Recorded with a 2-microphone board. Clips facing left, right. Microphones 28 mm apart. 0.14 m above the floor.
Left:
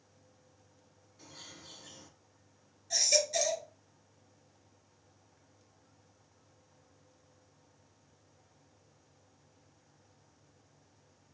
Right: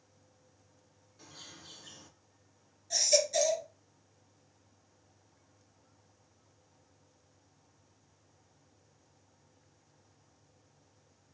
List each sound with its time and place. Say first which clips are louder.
1.2 s a bird: even; 10° right (ahead or behind), 1.8 m
2.9 s a baby crying: right 2 dB; 5° left (ahead or behind), 1.7 m